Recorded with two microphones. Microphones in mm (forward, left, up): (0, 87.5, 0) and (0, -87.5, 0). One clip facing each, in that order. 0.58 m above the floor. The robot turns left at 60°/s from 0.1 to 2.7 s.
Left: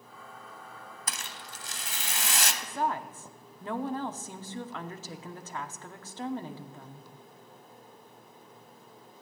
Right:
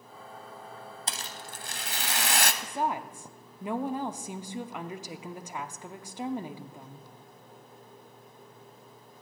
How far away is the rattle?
About 0.7 m.